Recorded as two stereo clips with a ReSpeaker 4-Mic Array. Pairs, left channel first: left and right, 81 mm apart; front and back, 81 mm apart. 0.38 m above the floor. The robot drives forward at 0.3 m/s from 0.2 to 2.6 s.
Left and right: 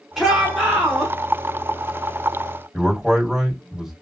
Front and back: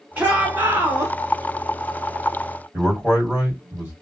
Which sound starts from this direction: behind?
A man speaking, at 2.7 s.